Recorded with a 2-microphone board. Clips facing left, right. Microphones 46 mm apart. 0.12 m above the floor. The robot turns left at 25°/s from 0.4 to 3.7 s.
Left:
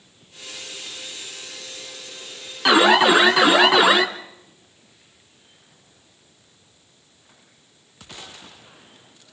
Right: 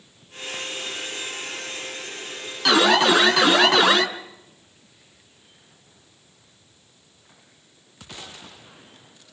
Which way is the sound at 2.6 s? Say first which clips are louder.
Left 3 dB; 20° left (ahead or behind).